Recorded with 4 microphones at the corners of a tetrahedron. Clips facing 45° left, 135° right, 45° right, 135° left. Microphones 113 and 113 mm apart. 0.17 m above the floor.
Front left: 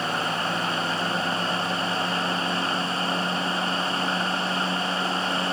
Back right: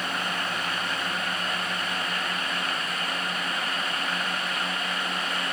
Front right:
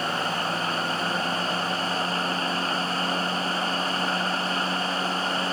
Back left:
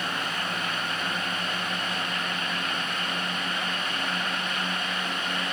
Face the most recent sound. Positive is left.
No sound to turn to.